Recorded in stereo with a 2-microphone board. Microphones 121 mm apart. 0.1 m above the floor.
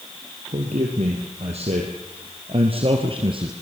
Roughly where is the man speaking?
Right.